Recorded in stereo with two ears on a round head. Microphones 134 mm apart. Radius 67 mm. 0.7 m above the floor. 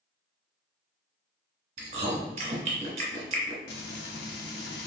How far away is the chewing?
About 1.0 m.